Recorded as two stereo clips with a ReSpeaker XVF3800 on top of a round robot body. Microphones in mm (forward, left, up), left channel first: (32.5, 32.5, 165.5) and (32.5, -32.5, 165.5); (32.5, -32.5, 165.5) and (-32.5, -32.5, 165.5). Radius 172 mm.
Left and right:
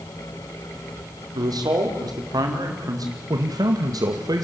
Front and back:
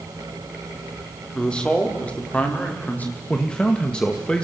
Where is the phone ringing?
No phone ringing in this recording.